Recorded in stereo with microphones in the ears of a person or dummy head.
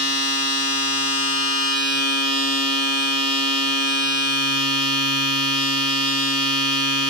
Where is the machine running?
30° right (ahead or behind), 1.1 m.